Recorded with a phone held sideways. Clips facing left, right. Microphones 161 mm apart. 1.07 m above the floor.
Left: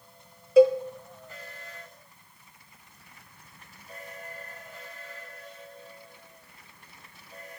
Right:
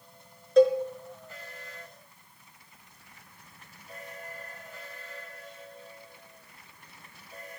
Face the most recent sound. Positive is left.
turn(degrees=10)  # may be behind; listen again after turning